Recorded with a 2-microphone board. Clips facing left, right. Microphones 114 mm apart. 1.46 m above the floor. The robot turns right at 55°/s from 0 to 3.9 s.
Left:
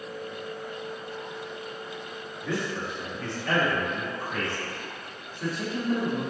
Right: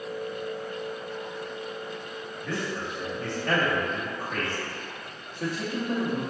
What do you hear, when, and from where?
2.4 s a man speaking: 15° left (ahead or behind), 2.5 m; by 6.2 s 65° right (ahead or behind), 2.5 m